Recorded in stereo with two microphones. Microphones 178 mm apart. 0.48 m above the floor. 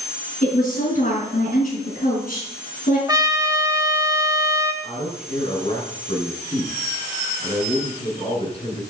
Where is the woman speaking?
50° left (ahead or behind), 5.5 m.